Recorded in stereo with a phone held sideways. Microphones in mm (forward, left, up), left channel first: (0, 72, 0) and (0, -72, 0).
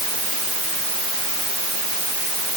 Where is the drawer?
I don't hear a drawer.